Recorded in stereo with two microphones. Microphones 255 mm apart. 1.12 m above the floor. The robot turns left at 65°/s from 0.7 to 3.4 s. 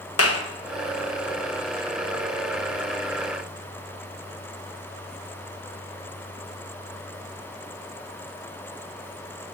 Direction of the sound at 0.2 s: 65° left (ahead or behind).